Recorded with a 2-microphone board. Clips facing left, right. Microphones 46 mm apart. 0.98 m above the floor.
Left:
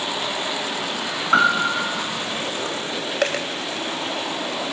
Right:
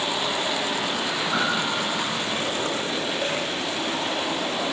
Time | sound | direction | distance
1.3 | a piano | 55° left (ahead or behind) | 2.5 m
3.2 | a dropped coin | 85° left | 2.5 m